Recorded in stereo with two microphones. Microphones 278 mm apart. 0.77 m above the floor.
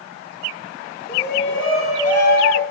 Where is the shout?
30° left (ahead or behind), 2.5 m; by 2.6 s 70° left (ahead or behind), 2.5 m.